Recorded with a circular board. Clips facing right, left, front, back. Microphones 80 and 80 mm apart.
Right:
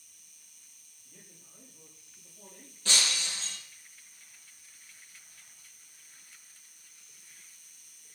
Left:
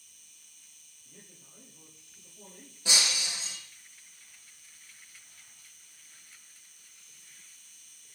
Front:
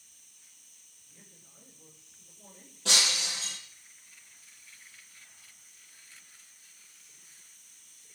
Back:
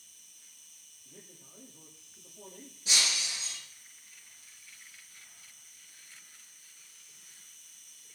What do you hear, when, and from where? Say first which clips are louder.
0.0 s an insect: left 2 dB, back 2 dB; 165° right, 3.5 m
1.1 s a man speaking: left 2 dB, back 6 dB; 165° left, 9 m
2.9 s breaking glass: even, front 3 dB; 15° left, 4.5 m